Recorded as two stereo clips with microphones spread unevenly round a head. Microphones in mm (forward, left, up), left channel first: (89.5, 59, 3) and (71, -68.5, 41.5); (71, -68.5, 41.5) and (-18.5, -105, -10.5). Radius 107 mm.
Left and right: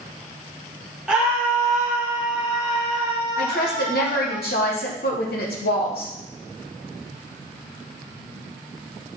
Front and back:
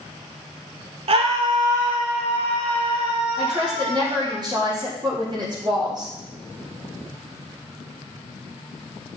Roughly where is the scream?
Behind right.